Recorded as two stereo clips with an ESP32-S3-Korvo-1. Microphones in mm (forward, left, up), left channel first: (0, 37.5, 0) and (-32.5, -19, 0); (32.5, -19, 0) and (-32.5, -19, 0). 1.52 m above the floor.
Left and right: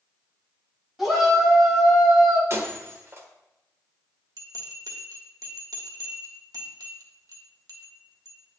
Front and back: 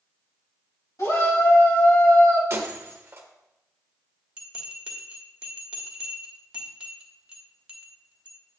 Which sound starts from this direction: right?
A bell, at 4.4 s.